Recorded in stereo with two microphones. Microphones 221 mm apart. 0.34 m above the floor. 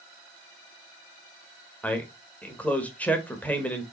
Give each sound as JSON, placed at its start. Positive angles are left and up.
{"t": 1.8, "sound": "a man speaking", "side_deg": 5, "distance_m": 0.9}